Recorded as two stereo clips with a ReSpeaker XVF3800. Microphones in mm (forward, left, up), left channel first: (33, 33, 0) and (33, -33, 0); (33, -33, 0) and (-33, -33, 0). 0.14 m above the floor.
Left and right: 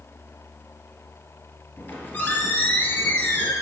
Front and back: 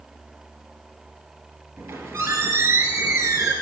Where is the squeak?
150° left, 1.6 m.